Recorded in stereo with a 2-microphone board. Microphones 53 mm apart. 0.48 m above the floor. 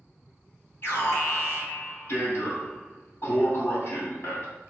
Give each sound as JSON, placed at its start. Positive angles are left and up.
{"t": 0.8, "sound": "an alarm", "side_deg": 45, "distance_m": 3.0}